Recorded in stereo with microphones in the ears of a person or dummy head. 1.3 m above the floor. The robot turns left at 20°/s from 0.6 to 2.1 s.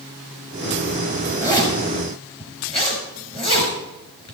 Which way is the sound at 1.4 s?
20° left (ahead or behind).